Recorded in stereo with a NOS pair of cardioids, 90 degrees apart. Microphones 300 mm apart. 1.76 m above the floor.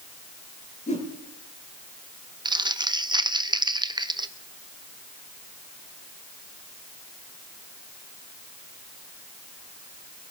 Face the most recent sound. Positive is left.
turn(degrees=-15)